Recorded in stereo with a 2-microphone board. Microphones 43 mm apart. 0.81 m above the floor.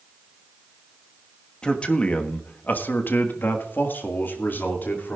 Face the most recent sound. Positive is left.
turn(degrees=45)  # may be behind; listen again after turning